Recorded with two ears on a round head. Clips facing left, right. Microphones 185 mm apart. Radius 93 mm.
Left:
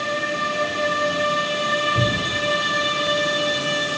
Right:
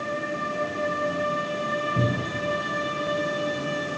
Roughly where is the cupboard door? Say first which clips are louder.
Left 2 dB; left.